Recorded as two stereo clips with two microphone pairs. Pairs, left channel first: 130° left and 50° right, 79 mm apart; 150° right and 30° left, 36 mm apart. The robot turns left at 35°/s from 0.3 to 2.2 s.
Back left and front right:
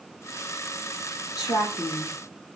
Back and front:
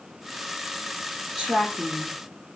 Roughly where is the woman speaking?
Behind left.